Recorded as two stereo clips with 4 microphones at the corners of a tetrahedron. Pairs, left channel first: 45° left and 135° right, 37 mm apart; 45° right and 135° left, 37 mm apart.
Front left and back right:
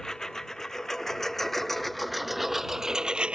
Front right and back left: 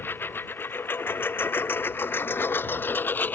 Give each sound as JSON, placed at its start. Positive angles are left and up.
{"t": 0.0, "sound": "a lawn mower", "azimuth_deg": -30}